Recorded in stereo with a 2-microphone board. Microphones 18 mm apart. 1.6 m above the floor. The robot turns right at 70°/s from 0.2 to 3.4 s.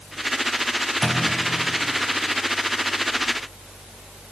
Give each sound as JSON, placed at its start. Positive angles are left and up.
{"t": 1.0, "sound": "a clunk", "side_deg": 10, "distance_m": 3.5}